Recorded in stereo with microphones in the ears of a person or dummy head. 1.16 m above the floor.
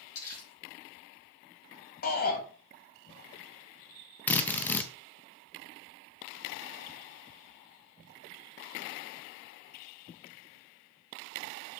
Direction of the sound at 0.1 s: 80° left.